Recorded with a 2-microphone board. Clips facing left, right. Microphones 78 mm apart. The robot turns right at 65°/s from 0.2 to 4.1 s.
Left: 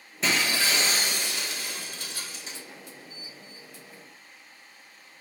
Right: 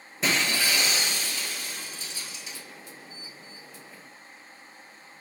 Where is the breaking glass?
5° right, 0.9 m; by 2.6 s 150° left, 0.9 m.